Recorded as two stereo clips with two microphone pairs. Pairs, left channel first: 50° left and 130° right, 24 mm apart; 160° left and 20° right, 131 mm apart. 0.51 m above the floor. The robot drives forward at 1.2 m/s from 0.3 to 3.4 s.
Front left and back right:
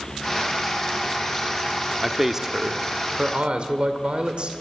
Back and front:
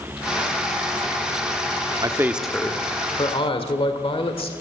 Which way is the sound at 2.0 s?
45° right.